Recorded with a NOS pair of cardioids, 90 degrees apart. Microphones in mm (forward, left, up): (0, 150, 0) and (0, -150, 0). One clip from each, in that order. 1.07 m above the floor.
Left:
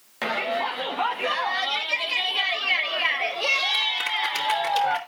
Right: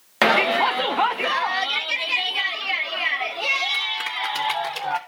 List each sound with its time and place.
0.2 s a shout: 65° right, 0.8 m; by 5.0 s straight ahead, 3 m